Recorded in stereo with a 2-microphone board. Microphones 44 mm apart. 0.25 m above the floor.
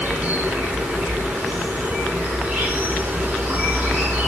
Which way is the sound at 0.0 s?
30° right (ahead or behind).